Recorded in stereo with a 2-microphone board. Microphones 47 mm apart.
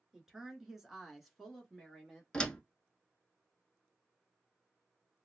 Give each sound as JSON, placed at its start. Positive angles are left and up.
{"t": 0.1, "sound": "a woman speaking", "side_deg": -10, "distance_m": 1.2}
{"t": 2.3, "sound": "a door slam", "side_deg": 20, "distance_m": 0.8}